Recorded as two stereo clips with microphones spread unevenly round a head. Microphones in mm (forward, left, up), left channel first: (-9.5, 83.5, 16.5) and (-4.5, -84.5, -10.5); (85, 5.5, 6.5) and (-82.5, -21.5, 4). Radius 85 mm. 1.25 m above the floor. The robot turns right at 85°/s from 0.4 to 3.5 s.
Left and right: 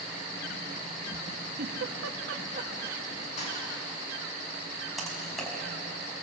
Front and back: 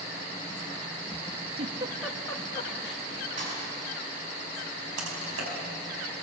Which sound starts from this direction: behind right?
A giggle, at 1.6 s.